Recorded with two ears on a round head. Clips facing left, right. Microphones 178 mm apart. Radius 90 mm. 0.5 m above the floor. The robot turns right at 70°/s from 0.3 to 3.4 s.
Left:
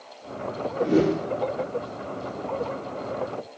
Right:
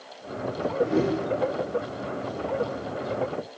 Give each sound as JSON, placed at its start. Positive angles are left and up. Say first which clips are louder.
{"t": 0.8, "sound": "a whoosh", "louder": "left 3 dB", "azimuth_deg": 50, "distance_m": 0.5}